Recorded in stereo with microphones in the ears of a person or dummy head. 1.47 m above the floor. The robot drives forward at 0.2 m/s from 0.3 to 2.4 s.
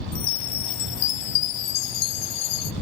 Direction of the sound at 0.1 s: 55° left (ahead or behind).